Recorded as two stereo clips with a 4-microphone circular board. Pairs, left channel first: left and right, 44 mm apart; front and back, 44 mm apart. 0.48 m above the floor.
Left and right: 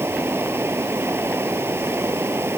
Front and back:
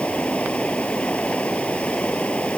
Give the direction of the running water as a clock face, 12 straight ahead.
2 o'clock.